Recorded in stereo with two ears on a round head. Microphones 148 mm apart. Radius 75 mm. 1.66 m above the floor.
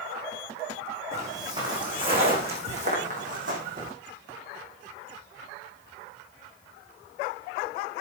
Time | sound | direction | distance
1.1 | footsteps | 20° right (ahead or behind) | 5 m